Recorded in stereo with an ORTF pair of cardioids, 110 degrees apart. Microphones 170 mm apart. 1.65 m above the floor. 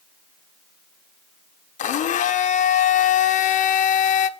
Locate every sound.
1.8 s a blender: 50° left, 1.2 m